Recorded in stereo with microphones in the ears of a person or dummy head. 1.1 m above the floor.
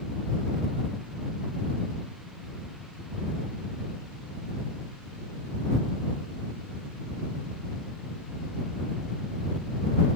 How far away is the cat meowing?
No cat meowing in this recording.